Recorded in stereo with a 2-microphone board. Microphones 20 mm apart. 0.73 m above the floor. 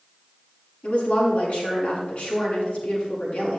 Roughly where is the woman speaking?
Left.